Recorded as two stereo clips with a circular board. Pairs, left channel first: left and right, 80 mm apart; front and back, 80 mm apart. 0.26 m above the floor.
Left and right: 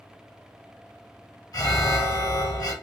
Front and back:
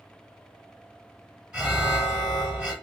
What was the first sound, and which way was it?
An alarm, 100° left.